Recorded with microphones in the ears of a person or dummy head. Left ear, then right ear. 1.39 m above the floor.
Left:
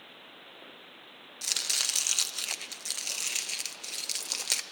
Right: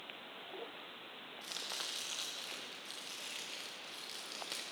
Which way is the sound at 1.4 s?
55° left (ahead or behind).